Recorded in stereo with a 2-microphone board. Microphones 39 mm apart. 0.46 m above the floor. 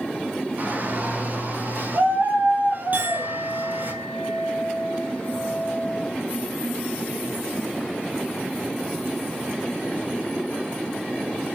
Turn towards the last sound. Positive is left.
turn(degrees=-50)  # may be behind; listen again after turning